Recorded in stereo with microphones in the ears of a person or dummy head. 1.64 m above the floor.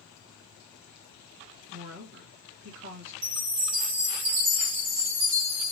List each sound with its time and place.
1.7 s a woman speaking: 60° right (ahead or behind), 2 m
3.2 s a chime: 55° right (ahead or behind), 1.6 m